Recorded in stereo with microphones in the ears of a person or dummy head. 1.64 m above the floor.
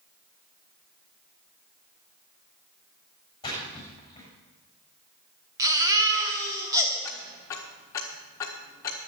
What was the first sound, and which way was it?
A splash, 20° left (ahead or behind).